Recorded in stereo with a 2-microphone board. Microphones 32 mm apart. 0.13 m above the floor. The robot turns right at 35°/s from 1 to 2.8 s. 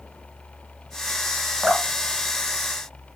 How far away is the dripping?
About 1.0 m.